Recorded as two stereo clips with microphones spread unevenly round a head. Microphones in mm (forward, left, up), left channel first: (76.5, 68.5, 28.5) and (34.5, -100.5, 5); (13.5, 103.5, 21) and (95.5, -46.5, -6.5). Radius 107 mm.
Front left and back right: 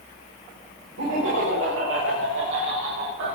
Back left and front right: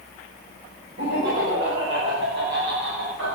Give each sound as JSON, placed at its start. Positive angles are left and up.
{"t": 1.0, "sound": "laughter", "azimuth_deg": -110, "distance_m": 6.5}